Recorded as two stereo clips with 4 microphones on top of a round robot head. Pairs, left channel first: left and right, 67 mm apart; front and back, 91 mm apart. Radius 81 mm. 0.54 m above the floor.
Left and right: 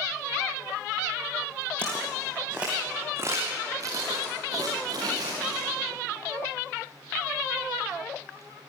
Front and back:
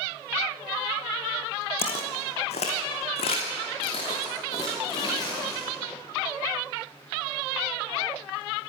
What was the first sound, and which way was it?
Footsteps, 15° left.